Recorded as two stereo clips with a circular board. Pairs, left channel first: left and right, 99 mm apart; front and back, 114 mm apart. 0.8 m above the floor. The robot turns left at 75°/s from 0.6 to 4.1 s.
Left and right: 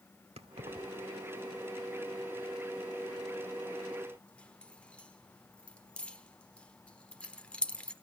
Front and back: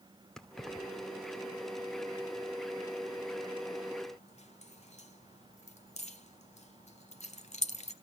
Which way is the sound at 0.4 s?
85° right.